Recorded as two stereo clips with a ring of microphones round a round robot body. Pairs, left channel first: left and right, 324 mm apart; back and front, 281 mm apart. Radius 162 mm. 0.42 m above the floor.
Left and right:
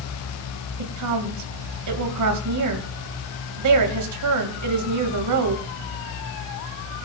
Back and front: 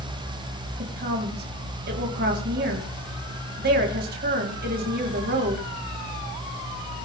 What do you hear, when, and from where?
0.8 s a woman speaking: 60° right, 2.5 m